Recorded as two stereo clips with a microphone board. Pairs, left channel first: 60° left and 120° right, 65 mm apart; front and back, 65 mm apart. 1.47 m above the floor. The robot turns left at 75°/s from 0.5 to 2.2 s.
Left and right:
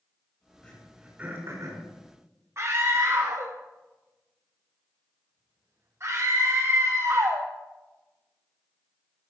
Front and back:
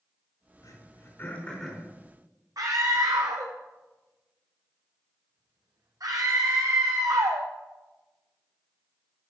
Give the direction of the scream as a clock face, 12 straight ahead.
6 o'clock.